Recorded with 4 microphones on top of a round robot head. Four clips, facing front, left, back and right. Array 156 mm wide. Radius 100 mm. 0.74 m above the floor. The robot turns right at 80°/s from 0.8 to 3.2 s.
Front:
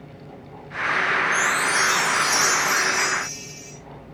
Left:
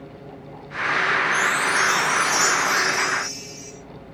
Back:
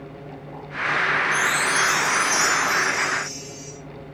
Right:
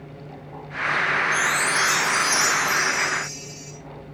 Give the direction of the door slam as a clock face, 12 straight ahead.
I don't hear a door slam.